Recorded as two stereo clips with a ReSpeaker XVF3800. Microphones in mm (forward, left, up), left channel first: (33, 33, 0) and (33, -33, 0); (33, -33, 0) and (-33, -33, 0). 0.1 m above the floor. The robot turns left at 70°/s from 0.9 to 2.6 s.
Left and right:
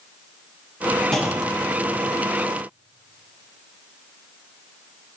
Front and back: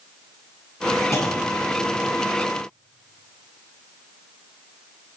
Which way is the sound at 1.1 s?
10° left.